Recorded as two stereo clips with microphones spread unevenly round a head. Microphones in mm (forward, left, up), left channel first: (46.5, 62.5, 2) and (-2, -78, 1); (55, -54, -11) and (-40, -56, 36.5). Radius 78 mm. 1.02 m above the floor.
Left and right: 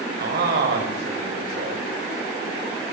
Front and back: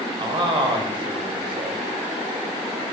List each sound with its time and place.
0.2 s a man speaking: 140° right, 6.5 m